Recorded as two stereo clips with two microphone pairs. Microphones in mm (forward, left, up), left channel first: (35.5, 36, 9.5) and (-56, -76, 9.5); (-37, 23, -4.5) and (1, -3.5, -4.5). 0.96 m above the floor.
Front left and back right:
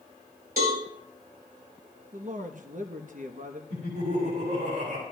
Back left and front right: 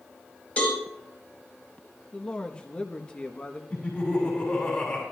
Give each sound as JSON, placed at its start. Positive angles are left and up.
{"t": 0.6, "sound": "a cowbell", "azimuth_deg": -150, "distance_m": 5.0}
{"t": 2.1, "sound": "a man speaking", "azimuth_deg": -150, "distance_m": 0.9}
{"t": 3.7, "sound": "laughter", "azimuth_deg": -150, "distance_m": 6.0}